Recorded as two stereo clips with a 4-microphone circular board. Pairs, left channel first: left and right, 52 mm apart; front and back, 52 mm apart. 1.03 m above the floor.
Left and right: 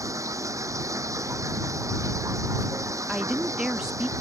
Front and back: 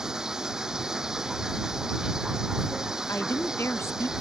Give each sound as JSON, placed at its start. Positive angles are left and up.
{"t": 0.0, "sound": "running water", "azimuth_deg": -100}
{"t": 3.1, "sound": "a woman speaking", "azimuth_deg": -15}